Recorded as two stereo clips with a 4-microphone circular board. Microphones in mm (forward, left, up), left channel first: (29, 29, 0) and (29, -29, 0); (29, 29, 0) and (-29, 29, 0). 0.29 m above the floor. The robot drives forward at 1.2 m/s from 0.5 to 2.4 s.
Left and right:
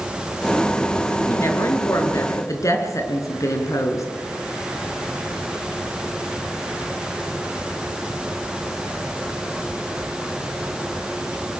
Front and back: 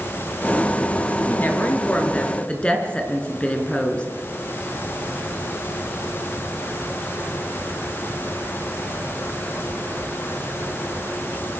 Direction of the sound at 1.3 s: 55° left.